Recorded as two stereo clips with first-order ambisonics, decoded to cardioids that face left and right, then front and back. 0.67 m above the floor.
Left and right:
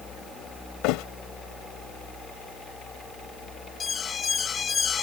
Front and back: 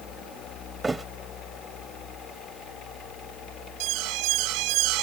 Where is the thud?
105° left.